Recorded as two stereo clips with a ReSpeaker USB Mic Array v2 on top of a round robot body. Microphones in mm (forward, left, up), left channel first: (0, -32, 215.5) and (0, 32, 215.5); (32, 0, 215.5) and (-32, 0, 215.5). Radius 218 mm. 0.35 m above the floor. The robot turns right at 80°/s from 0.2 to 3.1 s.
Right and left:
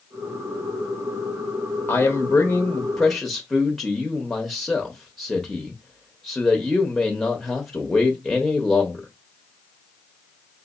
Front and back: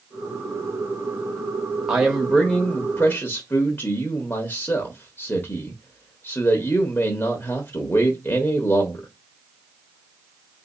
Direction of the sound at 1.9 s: 105° right.